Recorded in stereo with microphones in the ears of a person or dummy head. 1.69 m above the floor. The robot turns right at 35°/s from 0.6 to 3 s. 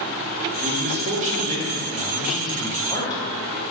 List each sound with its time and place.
0.6 s a man speaking: 60° right, 2 m; by 3.2 s 25° left, 2 m